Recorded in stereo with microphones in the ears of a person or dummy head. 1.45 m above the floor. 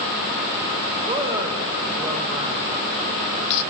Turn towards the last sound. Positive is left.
turn(degrees=-15)  # may be behind; listen again after turning